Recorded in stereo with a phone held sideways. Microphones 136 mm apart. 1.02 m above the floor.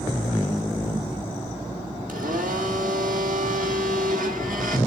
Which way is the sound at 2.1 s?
75° right (ahead or behind).